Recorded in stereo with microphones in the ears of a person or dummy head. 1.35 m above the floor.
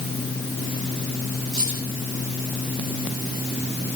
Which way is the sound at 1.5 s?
45° right (ahead or behind).